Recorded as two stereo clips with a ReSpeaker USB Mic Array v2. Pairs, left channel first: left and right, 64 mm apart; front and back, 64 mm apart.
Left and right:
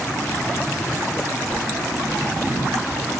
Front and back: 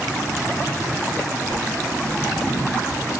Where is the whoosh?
170° left, 5.5 m.